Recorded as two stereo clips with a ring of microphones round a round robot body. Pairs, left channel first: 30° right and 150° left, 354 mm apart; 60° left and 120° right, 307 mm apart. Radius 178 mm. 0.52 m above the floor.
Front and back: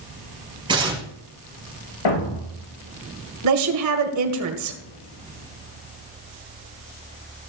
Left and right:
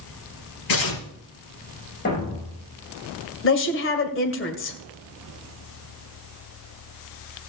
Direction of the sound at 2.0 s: 5° right.